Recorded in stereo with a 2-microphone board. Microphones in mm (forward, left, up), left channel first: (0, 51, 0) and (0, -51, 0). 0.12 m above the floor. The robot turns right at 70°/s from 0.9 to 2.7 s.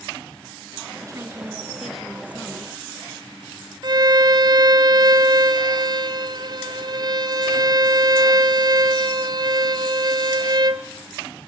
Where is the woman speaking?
70° right, 1.5 m; by 2.8 s 55° left, 1.5 m.